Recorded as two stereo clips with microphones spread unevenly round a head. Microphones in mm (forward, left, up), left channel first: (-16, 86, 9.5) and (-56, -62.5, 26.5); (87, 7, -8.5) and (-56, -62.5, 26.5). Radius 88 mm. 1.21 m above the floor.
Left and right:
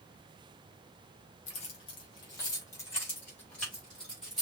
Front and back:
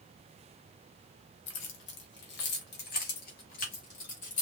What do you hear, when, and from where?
1.5 s keys jangling: 20° left, 1.4 m; by 4.4 s 15° right, 2.5 m